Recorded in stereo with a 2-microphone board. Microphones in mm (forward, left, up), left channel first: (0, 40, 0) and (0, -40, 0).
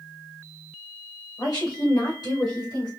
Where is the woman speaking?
60° left (ahead or behind), 2 m; by 2.9 s 65° left (ahead or behind), 1.7 m.